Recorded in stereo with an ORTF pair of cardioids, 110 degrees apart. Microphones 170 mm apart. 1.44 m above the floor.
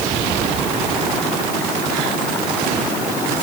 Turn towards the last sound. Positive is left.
No sound to turn to.